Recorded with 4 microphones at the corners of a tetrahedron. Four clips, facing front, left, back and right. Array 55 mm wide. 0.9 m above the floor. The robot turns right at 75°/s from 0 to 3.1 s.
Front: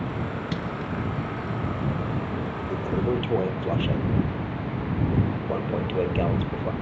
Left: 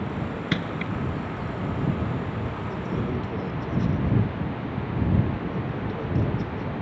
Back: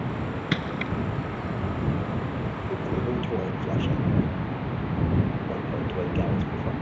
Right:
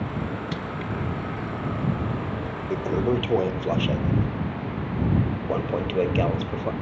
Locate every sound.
0.5 s crushing: 135° left; by 0.9 s 165° left
2.7 s a toilet flushing: 105° right; by 6.7 s 75° right